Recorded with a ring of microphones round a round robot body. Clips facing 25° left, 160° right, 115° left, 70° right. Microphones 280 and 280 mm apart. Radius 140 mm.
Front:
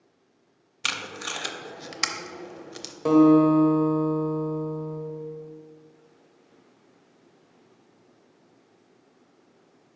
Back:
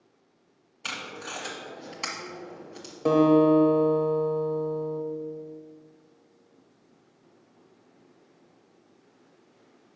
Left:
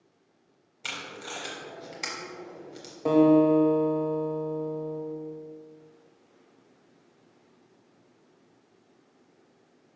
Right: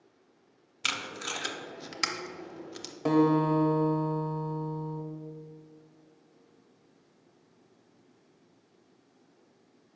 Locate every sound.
0.8 s tape being pulled: 15° right, 0.6 m
3.0 s a guitar: 45° right, 1.1 m